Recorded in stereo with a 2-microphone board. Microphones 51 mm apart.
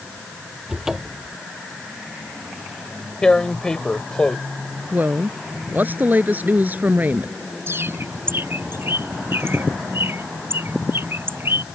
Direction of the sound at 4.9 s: 35° right (ahead or behind).